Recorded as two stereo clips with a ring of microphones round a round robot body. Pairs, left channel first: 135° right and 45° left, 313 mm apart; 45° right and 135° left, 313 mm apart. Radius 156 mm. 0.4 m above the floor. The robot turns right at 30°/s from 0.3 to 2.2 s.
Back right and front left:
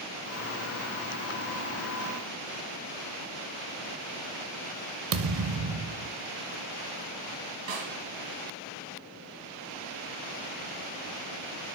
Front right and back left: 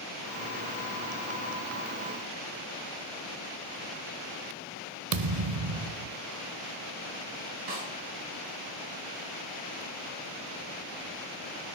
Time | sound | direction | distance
5.1 | a thud | 95° left | 0.5 m
7.7 | a snare drum | 90° left | 3.5 m